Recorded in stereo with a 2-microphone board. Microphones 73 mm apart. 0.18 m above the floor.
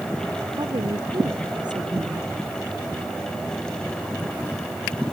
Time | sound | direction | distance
0.6 | a woman speaking | 85° right | ?